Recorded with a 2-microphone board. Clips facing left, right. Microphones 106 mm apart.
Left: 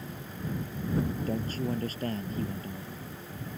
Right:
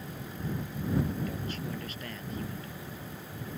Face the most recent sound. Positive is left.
turn(degrees=40)  # may be behind; listen again after turning